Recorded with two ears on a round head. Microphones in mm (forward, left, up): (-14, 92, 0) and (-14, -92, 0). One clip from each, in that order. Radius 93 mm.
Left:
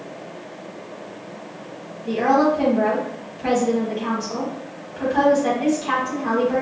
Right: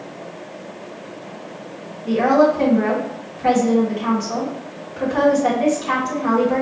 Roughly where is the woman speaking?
Centre.